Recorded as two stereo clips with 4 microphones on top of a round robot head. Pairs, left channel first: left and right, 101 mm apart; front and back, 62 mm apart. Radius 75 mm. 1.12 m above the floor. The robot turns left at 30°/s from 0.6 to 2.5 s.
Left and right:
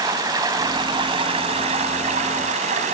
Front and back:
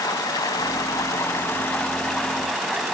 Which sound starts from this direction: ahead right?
Running water, at 0.0 s.